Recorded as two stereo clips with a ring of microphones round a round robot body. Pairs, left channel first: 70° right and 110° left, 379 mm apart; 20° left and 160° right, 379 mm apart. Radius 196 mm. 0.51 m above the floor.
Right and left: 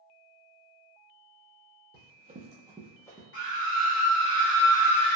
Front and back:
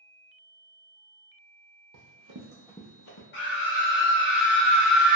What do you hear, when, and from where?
1.9 s running footsteps: 175° left, 0.8 m; by 3.2 s 10° left, 0.7 m
3.3 s a scream: 25° right, 1.4 m